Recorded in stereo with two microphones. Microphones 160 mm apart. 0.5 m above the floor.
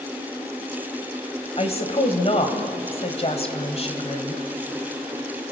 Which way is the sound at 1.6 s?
40° left (ahead or behind).